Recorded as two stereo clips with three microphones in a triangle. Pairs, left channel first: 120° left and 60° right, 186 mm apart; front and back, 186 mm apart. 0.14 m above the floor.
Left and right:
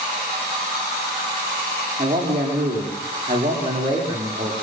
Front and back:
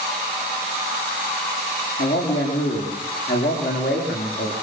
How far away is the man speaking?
About 7 m.